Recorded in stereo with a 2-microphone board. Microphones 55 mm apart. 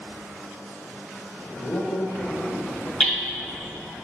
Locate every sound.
1.6 s a man speaking: 75° left (ahead or behind), 1.2 m
3.0 s hammering: 20° left (ahead or behind), 2.5 m